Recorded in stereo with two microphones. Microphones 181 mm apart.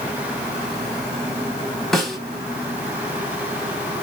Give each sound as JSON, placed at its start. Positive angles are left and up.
{"t": 1.9, "sound": "a snare drum", "side_deg": 0, "distance_m": 1.4}